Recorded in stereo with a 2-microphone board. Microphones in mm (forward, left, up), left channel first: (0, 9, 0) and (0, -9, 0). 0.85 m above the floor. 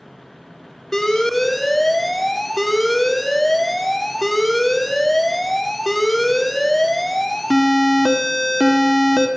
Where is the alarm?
20° left (ahead or behind), 1.9 m.